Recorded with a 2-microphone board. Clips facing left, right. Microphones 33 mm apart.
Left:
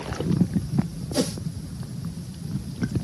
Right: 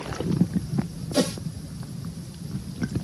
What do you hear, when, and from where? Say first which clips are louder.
1.1 s a whoosh: right 2 dB; 30° right (ahead or behind)